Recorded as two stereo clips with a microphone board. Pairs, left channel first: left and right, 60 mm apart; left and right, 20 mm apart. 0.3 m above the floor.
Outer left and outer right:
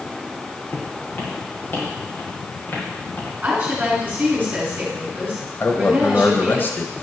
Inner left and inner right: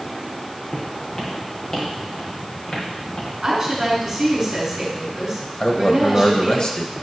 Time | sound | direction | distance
0.7 | footsteps | 35° left (ahead or behind) | 3 m
3.4 | a woman speaking | 30° right (ahead or behind) | 3.5 m
5.6 | a man speaking | 35° left (ahead or behind) | 1.1 m